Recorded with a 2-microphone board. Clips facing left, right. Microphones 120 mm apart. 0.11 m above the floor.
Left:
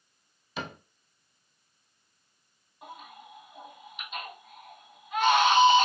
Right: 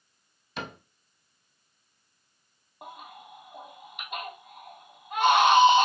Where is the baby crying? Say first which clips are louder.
Right 1 dB; 65° right (ahead or behind), 3 m.